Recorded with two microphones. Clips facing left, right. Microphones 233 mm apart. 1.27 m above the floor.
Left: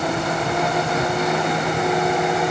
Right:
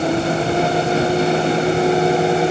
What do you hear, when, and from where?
Only background noise.